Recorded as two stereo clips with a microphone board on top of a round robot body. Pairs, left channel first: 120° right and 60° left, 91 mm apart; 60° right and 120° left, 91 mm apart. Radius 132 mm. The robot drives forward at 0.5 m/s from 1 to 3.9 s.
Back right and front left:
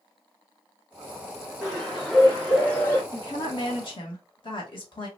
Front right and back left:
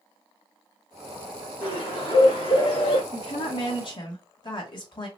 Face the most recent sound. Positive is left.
turn(degrees=-95)